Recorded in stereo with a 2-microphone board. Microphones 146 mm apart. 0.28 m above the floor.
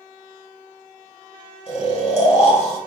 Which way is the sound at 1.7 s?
45° left (ahead or behind).